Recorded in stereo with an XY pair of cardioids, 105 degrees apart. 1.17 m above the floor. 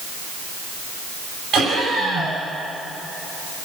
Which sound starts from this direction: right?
Laughter, at 1.5 s.